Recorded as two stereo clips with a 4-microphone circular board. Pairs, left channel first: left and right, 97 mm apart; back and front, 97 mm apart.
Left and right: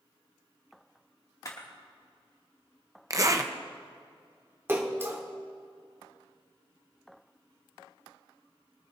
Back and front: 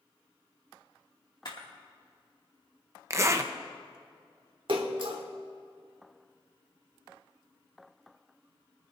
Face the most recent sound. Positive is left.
turn(degrees=-25)